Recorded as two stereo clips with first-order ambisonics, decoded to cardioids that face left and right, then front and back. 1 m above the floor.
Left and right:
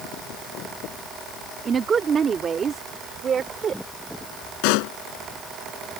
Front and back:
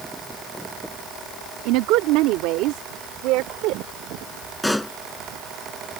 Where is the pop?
85° left.